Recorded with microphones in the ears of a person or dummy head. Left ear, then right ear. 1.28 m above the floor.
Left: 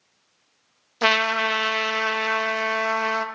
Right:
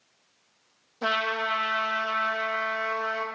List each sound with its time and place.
1.0 s a trumpet: 60° left (ahead or behind), 0.5 m